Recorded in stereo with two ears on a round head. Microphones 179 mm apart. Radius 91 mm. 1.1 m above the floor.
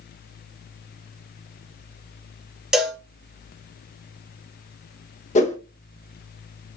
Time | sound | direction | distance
2.7 | a cowbell | 5° right (ahead or behind) | 1.4 m
5.3 | a whoosh | 35° left (ahead or behind) | 0.9 m